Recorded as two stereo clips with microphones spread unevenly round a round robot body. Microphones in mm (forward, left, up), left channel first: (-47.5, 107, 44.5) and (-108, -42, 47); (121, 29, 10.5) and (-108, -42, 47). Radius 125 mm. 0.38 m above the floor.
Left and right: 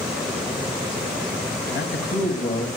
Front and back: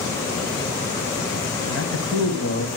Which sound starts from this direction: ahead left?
A man speaking, at 1.7 s.